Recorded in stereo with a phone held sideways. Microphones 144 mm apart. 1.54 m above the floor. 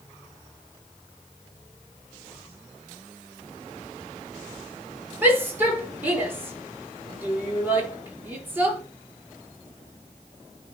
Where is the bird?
I don't hear a bird.